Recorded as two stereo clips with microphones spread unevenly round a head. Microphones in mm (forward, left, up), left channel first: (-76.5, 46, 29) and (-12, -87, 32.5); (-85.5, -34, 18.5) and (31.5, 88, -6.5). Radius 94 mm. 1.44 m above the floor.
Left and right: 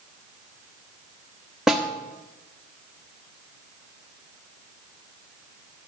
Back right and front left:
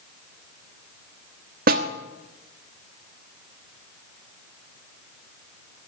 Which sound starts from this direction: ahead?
A snare drum, at 1.7 s.